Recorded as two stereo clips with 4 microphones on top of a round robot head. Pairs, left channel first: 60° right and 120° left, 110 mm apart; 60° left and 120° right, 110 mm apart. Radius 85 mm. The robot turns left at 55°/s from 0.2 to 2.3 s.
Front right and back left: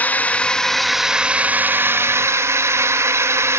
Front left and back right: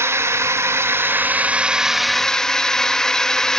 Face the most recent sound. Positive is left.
turn(degrees=135)